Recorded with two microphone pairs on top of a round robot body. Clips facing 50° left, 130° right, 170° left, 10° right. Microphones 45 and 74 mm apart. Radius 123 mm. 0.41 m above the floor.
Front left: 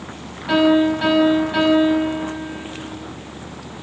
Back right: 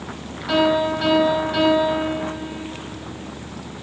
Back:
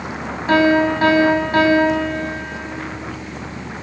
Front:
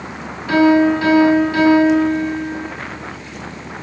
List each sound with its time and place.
0.5 s a piano: 130° left, 4.5 m